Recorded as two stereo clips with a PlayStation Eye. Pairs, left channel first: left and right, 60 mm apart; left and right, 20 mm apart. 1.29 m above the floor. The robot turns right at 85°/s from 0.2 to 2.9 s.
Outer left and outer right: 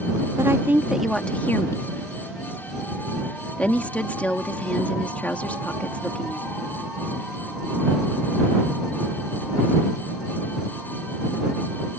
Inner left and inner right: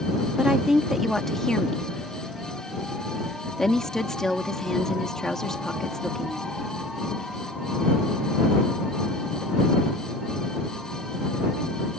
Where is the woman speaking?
60° right (ahead or behind); by 6.6 s 25° left (ahead or behind).